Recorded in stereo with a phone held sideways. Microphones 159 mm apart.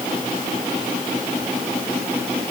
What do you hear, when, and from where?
Only background noise.